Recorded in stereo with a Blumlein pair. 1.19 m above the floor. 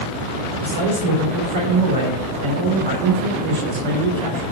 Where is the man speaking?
55° right, 4 m.